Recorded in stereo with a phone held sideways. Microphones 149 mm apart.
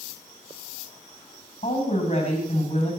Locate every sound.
1.6 s a woman speaking: 50° left (ahead or behind), 9 m